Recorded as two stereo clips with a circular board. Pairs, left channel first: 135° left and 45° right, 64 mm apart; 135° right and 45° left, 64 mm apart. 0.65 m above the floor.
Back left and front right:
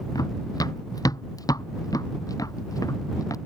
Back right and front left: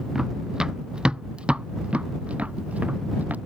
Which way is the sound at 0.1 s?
125° left.